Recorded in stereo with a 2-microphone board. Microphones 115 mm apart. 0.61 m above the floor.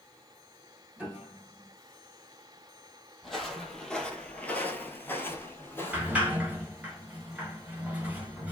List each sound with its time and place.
1.0 s a piano: 15° right (ahead or behind), 1.1 m
3.2 s footsteps: centre (ahead or behind), 0.9 m; by 6.3 s 20° left (ahead or behind), 1.0 m
5.9 s a sliding door: 15° right (ahead or behind), 1.0 m